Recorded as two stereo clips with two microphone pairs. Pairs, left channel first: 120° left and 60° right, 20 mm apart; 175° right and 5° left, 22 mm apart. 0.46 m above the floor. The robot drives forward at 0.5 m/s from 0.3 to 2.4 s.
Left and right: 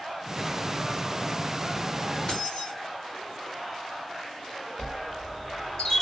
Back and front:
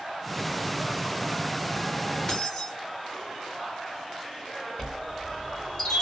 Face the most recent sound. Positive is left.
turn(degrees=145)